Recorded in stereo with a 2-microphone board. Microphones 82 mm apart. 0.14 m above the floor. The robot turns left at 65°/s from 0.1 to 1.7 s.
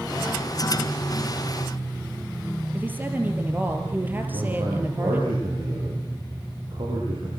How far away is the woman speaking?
About 3.5 m.